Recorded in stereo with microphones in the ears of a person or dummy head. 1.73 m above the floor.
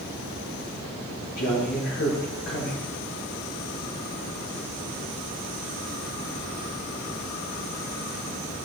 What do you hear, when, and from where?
1.4 s a man speaking: 65° left (ahead or behind), 4 m